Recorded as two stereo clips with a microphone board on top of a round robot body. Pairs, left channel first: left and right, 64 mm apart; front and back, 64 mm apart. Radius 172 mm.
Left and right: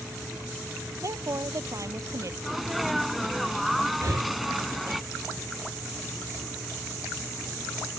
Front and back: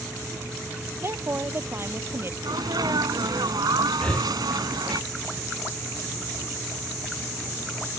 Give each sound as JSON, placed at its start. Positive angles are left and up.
{"t": 1.0, "sound": "a woman speaking", "azimuth_deg": -130}
{"t": 2.4, "sound": "a sneeze", "azimuth_deg": 180}
{"t": 4.0, "sound": "breathing", "azimuth_deg": -75}